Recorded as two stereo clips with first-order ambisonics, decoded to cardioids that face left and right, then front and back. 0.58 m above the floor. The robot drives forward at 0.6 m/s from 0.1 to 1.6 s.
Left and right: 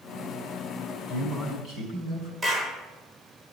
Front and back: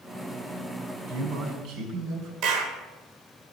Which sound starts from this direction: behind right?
A man speaking, at 1.1 s.